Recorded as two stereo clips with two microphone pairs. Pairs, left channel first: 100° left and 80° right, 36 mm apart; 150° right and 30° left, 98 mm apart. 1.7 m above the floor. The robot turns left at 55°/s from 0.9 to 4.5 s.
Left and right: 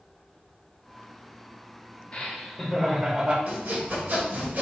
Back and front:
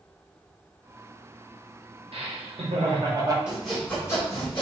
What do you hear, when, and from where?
2.1 s laughter: 45° left, 0.9 m; by 3.4 s 25° right, 0.9 m
3.5 s sawing: 50° right, 2.0 m; by 4.6 s 105° right, 2.0 m